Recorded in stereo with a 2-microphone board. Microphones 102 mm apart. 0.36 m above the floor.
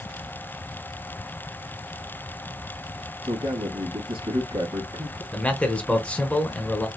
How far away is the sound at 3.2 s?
About 1.8 m.